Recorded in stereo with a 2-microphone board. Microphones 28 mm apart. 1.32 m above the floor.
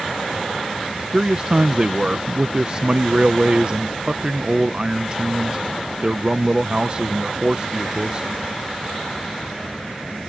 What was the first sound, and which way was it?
A man speaking, 30° right (ahead or behind).